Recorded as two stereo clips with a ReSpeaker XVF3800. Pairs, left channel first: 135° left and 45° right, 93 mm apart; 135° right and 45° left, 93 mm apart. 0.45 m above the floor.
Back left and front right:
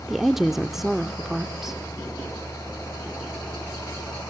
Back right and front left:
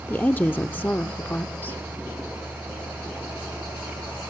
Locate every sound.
0.1 s a woman speaking: 125° right, 0.7 m